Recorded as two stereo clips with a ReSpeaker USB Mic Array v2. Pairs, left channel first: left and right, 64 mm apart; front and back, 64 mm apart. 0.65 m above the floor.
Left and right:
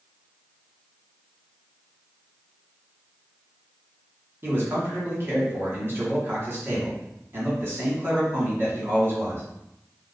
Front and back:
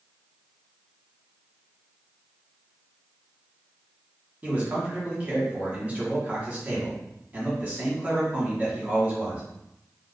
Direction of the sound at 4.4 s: 120° right.